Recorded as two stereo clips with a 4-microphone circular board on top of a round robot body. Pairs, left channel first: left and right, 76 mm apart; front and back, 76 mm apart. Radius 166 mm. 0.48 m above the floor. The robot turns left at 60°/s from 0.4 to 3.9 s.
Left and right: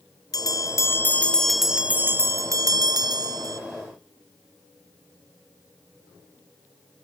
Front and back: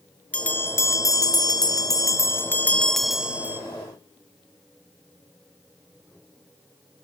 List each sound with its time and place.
0.3 s a bell: 70° left, 1.9 m; by 3.6 s 125° right, 1.9 m